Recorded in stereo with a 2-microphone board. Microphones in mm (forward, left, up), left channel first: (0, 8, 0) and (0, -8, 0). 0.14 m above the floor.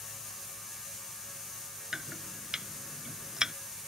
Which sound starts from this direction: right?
Chopping, at 1.9 s.